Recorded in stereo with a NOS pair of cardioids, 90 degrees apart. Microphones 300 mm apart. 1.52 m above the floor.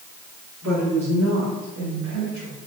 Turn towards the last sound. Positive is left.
turn(degrees=-70)